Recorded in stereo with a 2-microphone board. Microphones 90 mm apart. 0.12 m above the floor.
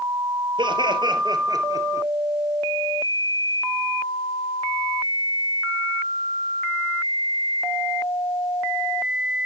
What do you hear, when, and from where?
0.6 s laughter: 60° right (ahead or behind), 2.5 m; by 2.1 s 35° right (ahead or behind), 1.7 m